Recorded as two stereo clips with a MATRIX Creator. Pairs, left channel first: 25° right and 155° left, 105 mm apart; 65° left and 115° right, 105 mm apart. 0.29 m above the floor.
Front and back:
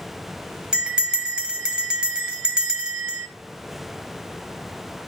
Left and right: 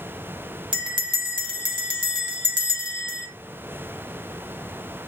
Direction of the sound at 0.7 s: 125° right.